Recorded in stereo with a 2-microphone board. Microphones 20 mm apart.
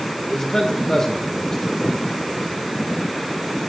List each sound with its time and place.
0.3 s a man speaking: 25° left (ahead or behind), 1.9 m